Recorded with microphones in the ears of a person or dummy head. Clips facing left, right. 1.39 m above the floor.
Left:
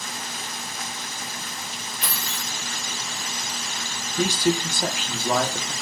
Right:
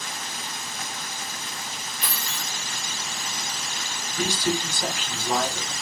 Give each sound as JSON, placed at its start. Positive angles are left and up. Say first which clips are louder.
{"t": 2.0, "sound": "keys jangling", "louder": "left 1 dB", "side_deg": 50, "distance_m": 1.0}
{"t": 4.2, "sound": "a man speaking", "louder": "left 4 dB", "side_deg": 50, "distance_m": 0.5}